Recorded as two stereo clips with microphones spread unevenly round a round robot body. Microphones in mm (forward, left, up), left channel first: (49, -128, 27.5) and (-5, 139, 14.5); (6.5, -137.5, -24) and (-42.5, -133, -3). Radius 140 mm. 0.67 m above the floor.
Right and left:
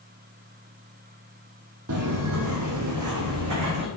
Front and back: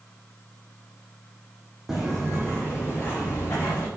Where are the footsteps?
125° left, 0.9 m; by 3.9 s 75° left, 2 m.